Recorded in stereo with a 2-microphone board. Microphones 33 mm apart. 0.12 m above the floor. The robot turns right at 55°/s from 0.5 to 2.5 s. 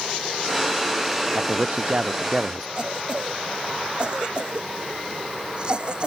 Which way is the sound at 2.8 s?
30° right (ahead or behind).